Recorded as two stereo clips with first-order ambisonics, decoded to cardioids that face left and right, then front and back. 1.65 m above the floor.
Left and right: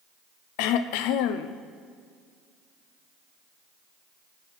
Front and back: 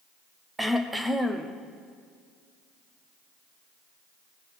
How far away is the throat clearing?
About 0.7 m.